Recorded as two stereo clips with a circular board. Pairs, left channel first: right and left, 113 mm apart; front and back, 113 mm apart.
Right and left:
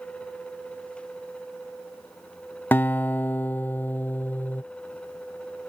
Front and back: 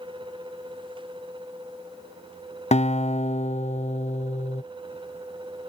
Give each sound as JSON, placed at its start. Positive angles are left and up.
{"t": 2.7, "sound": "a guitar", "azimuth_deg": -15}